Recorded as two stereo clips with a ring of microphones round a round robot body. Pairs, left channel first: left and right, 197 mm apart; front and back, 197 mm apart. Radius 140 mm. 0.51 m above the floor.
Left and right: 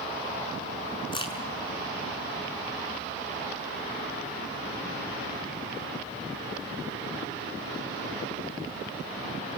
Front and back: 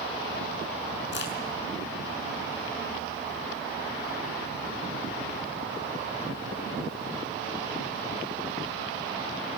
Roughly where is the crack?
Ahead left.